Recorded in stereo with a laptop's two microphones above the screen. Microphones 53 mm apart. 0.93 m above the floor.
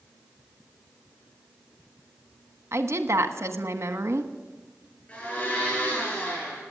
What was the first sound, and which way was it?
A woman speaking, 60° right (ahead or behind).